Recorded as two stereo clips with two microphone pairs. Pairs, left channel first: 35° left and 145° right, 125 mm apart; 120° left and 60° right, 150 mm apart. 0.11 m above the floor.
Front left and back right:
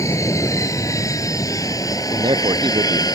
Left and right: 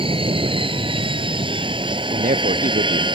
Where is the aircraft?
20° right; by 3.2 s 10° right.